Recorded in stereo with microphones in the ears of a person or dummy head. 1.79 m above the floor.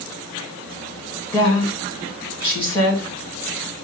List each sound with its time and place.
1.3 s a woman speaking: 15° left (ahead or behind), 3 m